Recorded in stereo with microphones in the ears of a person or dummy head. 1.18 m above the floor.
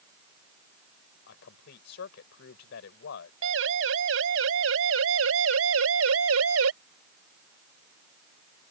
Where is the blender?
No blender in this recording.